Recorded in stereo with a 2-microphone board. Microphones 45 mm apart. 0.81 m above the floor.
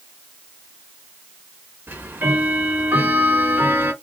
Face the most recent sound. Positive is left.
turn(degrees=-45)  # may be behind; listen again after turning